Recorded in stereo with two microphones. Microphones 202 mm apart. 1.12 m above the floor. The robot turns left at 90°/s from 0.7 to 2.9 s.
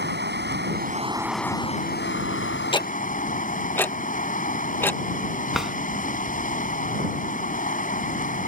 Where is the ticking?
25° left (ahead or behind); by 5.0 s 10° left (ahead or behind).